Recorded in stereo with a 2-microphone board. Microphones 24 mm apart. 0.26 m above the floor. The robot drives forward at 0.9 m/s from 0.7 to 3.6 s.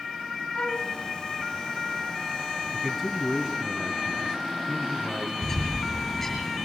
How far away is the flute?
About 2.0 m.